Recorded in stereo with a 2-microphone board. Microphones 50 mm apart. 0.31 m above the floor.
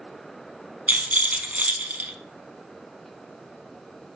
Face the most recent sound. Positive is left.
turn(degrees=-30)  # may be behind; listen again after turning